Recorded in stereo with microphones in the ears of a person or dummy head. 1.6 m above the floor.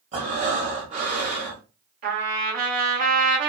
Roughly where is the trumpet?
Right.